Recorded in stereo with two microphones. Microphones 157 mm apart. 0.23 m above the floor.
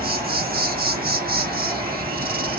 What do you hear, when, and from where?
0.0 s an insect: 75° right (ahead or behind), 1.0 m